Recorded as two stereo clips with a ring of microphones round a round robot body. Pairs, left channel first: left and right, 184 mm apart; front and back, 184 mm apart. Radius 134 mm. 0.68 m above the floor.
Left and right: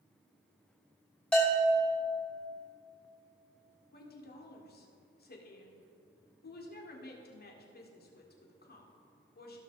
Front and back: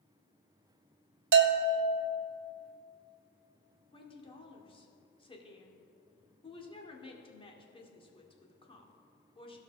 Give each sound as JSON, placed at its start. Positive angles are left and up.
{"t": 1.3, "sound": "a bell", "azimuth_deg": 175, "distance_m": 0.9}
{"t": 3.9, "sound": "a woman speaking", "azimuth_deg": 60, "distance_m": 1.9}